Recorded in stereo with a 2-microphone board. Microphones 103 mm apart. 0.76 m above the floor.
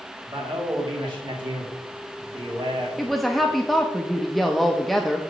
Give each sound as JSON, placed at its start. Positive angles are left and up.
{"t": 0.2, "sound": "a man speaking", "side_deg": -55, "distance_m": 2.0}
{"t": 3.0, "sound": "a woman speaking", "side_deg": 0, "distance_m": 0.6}